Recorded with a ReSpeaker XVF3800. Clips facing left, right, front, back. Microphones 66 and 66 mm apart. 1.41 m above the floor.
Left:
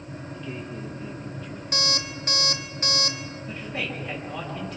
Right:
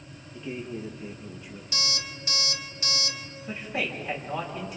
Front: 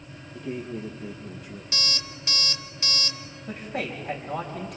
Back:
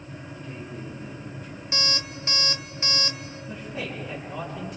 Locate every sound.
0.3 s a man speaking: 15° right, 1.4 m
1.7 s an alarm clock: 120° left, 1.4 m
3.5 s a man speaking: 10° right, 6.5 m